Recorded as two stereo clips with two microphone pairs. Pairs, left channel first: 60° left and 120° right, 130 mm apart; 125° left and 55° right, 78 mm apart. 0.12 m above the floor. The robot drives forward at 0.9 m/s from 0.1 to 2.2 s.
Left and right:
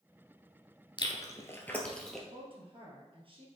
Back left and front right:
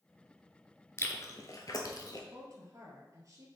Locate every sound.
1.0 s chewing: 90° left, 0.9 m; by 2.2 s 150° left, 1.4 m
2.3 s a woman speaking: 90° right, 2 m